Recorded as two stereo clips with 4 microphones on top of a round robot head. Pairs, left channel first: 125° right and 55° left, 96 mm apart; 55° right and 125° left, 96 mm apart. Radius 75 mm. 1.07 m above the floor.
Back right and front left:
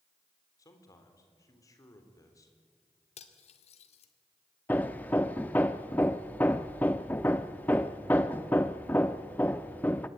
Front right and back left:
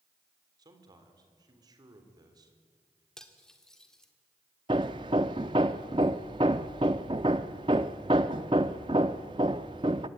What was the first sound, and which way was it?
A man speaking, 175° left.